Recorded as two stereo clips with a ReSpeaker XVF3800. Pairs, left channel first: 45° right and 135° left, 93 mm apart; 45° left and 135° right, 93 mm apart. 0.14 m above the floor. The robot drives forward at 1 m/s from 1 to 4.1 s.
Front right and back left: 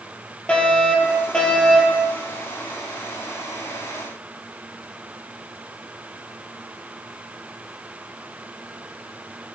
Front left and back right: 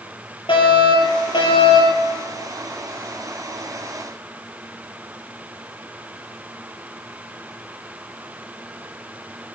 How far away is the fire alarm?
About 5.5 m.